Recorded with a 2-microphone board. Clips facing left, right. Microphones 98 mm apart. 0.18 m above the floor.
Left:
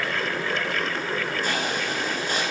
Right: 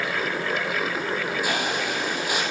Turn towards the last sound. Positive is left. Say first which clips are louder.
# right 1 dB
turn(degrees=-10)  # may be behind; listen again after turning